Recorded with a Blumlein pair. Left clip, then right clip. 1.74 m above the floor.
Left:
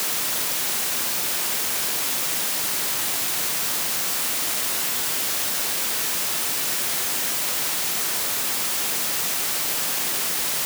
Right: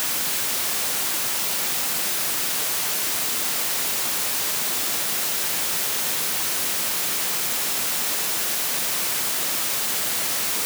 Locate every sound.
Only background noise.